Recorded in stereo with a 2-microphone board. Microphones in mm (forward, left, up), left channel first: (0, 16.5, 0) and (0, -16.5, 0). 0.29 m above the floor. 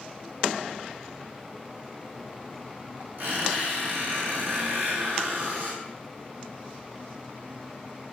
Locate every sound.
3.2 s a squeak: 60° right (ahead or behind), 1.9 m